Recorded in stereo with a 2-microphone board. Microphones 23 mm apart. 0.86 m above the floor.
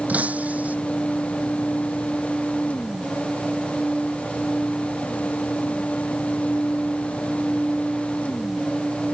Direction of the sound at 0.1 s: 75° right (ahead or behind).